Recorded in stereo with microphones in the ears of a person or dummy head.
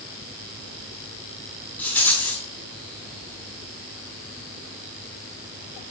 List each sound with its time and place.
1.8 s a rattle: 15° left (ahead or behind), 6 m